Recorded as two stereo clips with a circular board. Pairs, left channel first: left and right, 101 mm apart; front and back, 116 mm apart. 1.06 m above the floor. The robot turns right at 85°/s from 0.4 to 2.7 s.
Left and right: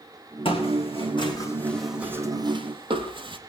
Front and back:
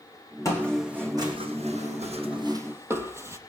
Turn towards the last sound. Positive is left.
turn(degrees=-115)